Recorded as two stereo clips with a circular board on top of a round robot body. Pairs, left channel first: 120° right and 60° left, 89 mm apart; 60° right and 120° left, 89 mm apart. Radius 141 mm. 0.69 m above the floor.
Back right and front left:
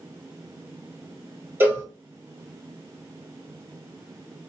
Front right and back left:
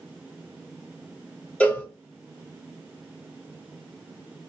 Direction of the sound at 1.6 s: 5° left.